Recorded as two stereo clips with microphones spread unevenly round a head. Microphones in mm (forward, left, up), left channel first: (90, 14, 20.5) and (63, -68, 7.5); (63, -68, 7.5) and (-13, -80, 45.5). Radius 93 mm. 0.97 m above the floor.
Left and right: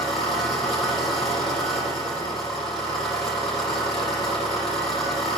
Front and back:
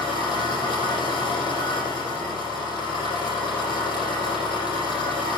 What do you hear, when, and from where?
0.0 s an engine running: 140° left, 8 m